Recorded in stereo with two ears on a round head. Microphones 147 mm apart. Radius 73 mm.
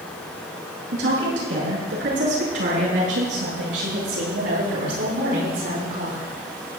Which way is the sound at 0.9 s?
85° right.